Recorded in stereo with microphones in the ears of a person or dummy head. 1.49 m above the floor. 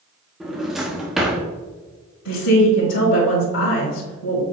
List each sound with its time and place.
0.4 s a drawer: 5° right (ahead or behind), 1.1 m
2.2 s a woman speaking: 65° left (ahead or behind), 1.4 m